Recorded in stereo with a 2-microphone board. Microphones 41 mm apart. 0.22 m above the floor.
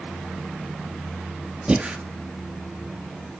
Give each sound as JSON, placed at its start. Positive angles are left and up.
{"t": 1.7, "sound": "breathing", "side_deg": -30, "distance_m": 1.9}